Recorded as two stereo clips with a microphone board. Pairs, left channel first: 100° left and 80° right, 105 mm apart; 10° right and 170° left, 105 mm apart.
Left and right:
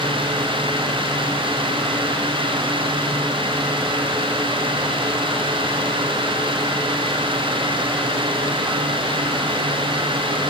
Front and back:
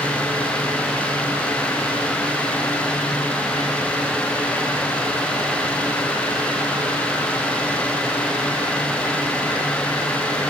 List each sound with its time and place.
Only background noise.